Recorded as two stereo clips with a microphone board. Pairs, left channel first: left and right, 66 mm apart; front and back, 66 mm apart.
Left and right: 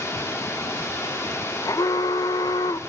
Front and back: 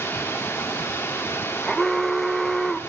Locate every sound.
0.0 s running water: 45° left, 1.6 m
1.6 s an alarm: 80° left, 0.6 m